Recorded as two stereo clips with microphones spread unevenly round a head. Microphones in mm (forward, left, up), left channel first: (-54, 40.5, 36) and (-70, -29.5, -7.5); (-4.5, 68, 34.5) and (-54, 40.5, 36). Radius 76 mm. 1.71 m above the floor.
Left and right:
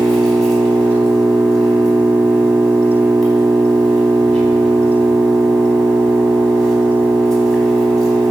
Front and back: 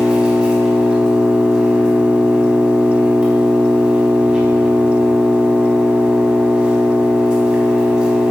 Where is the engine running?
140° left, 3.5 m.